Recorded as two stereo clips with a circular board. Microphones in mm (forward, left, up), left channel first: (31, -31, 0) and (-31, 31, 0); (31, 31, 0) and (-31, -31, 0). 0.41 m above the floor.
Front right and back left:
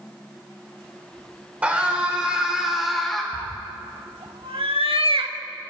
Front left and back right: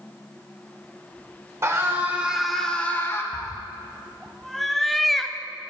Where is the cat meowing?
135° left, 0.5 m.